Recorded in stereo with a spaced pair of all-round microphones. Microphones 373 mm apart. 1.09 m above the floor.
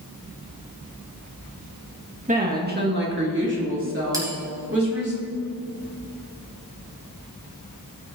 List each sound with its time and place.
2.3 s a woman speaking: 20° right (ahead or behind), 1.6 m; by 5.1 s 35° right (ahead or behind), 3.5 m
4.1 s a bell: 10° right (ahead or behind), 3 m